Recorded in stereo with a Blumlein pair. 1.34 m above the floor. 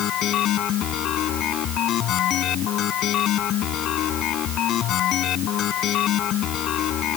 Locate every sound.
0.0 s a machine running: 30° left